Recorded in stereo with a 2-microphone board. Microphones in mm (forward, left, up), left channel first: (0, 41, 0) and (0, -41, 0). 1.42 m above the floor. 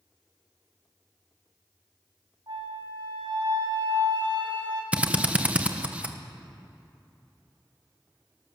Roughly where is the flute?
Right.